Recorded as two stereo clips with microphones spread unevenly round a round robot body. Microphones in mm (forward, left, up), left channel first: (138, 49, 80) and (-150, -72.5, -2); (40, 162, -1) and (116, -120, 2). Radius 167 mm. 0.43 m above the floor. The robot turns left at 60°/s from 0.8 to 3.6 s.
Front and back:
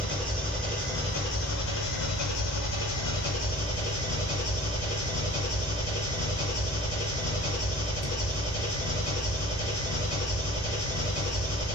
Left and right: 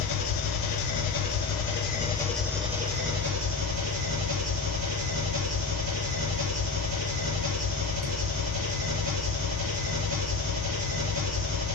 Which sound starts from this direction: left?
An engine running, at 0.0 s.